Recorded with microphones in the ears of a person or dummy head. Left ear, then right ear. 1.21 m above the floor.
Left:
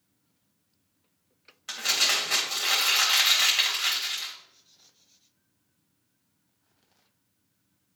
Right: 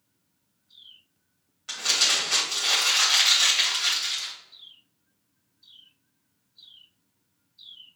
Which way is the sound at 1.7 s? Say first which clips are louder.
Right 2 dB; 20° left (ahead or behind).